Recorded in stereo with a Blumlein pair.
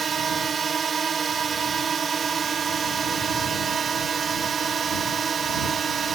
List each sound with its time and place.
0.0 s a drone: 20° right